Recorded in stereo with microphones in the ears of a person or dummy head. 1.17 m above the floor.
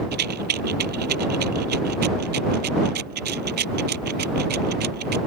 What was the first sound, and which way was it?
A rattle, 55° right (ahead or behind).